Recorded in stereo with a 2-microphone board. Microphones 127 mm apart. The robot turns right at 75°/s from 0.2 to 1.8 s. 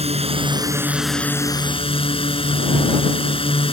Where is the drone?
65° right; by 3.7 s 55° left.